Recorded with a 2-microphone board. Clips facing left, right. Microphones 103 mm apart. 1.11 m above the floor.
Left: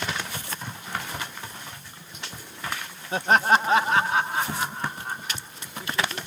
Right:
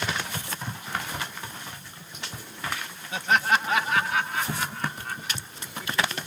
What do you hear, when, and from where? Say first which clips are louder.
3.1 s laughter: left 4 dB; 35° left (ahead or behind); by 6.2 s 20° left (ahead or behind)